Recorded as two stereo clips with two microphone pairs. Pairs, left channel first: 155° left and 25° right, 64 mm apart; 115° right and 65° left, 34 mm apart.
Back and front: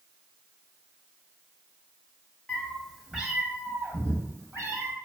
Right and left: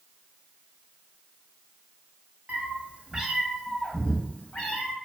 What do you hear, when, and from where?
2.5 s a cat meowing: 80° left, 0.7 m; by 4.9 s 70° right, 1.2 m